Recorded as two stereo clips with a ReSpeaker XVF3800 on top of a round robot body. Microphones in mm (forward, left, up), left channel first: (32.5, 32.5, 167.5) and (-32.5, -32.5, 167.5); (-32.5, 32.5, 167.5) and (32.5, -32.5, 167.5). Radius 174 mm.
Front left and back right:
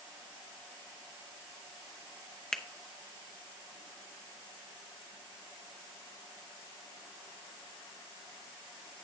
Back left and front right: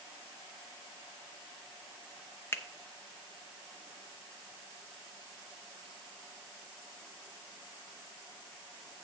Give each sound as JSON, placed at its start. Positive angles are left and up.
{"t": 2.5, "sound": "a finger snap", "azimuth_deg": 120, "distance_m": 0.9}